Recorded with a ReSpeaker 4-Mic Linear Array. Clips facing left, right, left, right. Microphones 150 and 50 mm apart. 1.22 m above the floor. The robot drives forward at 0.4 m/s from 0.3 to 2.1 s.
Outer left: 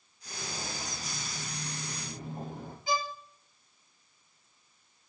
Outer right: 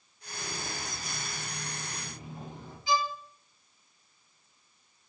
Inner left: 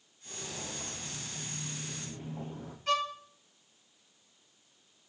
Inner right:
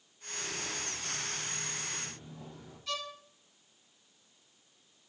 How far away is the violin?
About 2 m.